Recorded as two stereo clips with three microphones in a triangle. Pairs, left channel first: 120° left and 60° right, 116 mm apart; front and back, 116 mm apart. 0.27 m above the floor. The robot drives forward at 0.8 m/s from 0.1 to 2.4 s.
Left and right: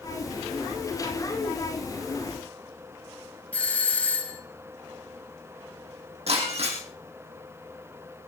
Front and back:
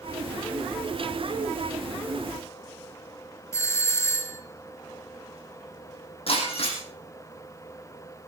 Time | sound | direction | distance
3.5 | a doorbell | 50° left | 1.7 m
6.3 | breaking glass | 35° right | 5.5 m